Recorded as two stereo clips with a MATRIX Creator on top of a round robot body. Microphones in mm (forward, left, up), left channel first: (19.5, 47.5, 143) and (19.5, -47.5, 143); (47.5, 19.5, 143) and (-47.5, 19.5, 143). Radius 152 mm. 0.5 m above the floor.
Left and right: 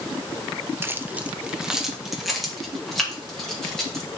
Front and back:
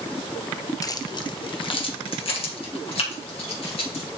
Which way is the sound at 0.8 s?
35° right.